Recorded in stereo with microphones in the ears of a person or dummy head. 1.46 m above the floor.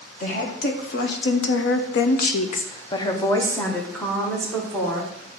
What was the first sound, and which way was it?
A woman speaking, 45° left (ahead or behind).